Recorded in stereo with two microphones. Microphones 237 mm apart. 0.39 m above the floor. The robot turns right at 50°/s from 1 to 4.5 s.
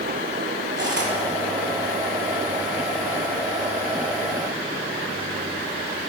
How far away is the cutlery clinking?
About 1.1 m.